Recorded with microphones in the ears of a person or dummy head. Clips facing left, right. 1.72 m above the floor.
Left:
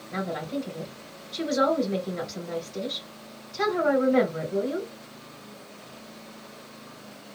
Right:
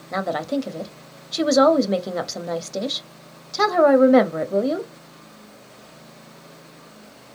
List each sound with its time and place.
0.1 s a woman speaking: 80° right, 0.8 m